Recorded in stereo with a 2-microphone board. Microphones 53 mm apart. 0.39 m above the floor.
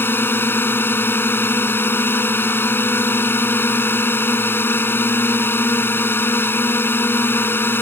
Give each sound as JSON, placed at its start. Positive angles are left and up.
{"t": 0.0, "sound": "a drone", "side_deg": 45}